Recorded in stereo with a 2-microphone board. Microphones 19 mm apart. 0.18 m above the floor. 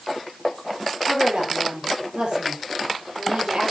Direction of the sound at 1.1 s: 65° right (ahead or behind).